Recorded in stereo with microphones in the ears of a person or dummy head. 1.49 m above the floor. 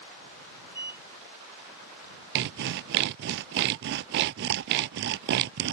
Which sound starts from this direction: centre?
A sliding door, at 0.7 s.